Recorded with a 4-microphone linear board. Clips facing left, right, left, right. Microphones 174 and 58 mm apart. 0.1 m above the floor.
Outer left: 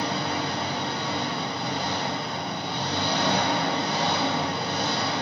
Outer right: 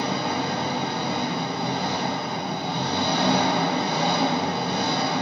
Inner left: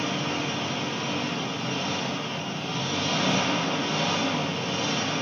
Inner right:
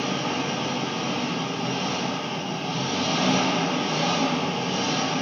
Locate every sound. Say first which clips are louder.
0.0 s an engine running: outer right 2 dB, inner right 2 dB; 65° right (ahead or behind), 1.0 m